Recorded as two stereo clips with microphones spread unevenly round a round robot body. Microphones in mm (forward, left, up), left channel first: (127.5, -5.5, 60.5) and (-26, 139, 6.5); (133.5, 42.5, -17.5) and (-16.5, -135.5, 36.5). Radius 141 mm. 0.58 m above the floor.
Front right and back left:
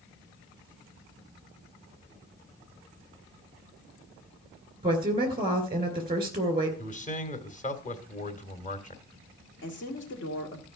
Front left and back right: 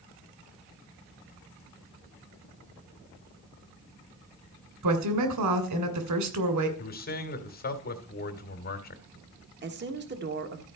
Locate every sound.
4.8 s a woman speaking: 160° right, 2.5 m
6.8 s a man speaking: 15° left, 2 m
9.6 s a woman speaking: 85° right, 1.7 m